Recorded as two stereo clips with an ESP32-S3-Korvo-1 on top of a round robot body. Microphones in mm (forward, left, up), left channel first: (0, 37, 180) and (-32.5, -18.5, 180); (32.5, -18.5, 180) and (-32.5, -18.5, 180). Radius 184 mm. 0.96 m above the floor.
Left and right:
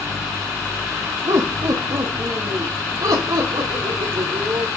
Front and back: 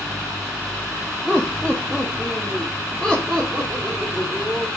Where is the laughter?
90° right, 1.6 m; by 4.7 s 100° right, 3.5 m.